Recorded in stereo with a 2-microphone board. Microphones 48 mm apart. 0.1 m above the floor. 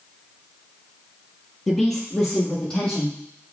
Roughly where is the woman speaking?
Centre.